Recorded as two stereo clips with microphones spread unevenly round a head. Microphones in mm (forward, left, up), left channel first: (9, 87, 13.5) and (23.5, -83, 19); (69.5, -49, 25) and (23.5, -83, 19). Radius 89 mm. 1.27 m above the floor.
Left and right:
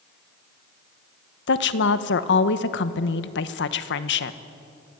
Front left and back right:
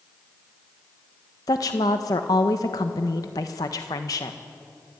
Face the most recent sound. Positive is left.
turn(degrees=80)